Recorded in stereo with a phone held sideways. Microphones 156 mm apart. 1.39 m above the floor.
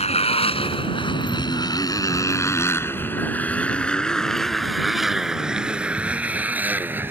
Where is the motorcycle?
45° left (ahead or behind); by 7.1 s 15° right (ahead or behind).